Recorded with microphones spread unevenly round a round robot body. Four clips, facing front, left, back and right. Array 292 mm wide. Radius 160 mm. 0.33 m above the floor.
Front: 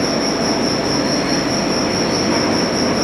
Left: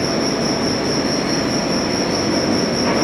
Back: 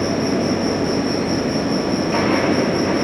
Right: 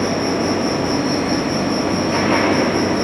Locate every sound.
0.0 s an insect: 5° right, 8.5 m